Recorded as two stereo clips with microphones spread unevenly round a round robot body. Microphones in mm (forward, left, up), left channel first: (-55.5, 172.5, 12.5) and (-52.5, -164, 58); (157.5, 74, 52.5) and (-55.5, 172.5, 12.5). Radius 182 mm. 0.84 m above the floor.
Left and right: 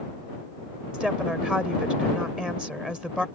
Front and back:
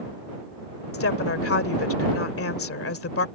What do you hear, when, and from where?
0.9 s a woman speaking: straight ahead